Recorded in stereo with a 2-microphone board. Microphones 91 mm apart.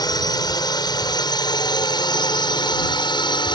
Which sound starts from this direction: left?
A drone, at 0.0 s.